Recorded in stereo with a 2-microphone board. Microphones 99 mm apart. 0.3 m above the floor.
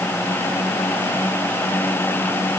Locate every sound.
Only background noise.